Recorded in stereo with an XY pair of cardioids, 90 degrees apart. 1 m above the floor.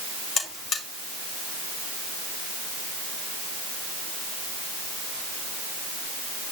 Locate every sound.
0.4 s a buzzer: 60° left, 4.5 m